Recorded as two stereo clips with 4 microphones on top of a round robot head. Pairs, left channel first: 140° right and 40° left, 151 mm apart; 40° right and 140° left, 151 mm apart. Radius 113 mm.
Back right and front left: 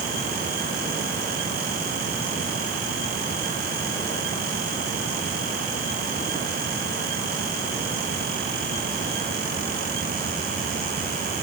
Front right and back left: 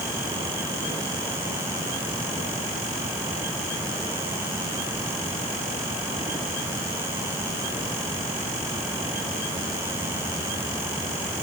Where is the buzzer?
I don't hear a buzzer.